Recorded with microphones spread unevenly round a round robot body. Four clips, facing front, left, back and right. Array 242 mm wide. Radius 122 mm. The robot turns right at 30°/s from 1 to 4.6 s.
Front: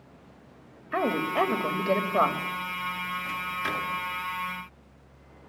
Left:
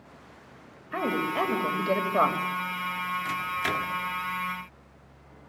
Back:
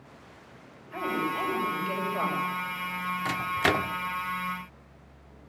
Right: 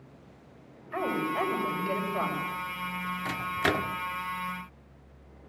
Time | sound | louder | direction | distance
0.9 | a woman speaking | left 2 dB, front 4 dB | 20° left | 3.5 m
3.2 | a microwave | right 1 dB, back 9 dB | 155° right | 1.3 m